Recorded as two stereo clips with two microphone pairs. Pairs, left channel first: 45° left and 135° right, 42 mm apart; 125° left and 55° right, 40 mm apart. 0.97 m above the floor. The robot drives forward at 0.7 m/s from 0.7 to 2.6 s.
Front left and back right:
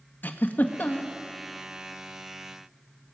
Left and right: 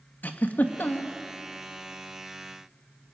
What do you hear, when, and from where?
0.2 s a giggle: 80° left, 1.6 m; by 1.1 s 95° left, 1.6 m